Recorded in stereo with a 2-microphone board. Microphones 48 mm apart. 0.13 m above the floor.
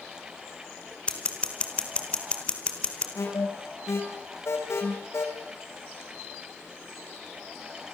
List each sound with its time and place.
1.1 s scissors: 25° left (ahead or behind), 3 m
3.1 s an alarm: 70° left (ahead or behind), 5 m